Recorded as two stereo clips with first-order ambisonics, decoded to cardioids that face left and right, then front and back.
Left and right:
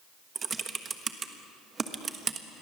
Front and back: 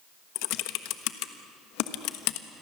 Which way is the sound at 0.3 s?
20° right.